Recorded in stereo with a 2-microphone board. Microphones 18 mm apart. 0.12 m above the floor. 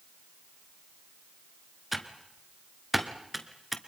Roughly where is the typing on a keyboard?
Centre.